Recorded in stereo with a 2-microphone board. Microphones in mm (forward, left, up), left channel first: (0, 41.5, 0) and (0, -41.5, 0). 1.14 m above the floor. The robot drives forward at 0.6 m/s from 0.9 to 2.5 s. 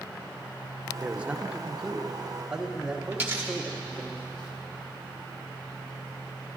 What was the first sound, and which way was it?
A man speaking, 15° right (ahead or behind).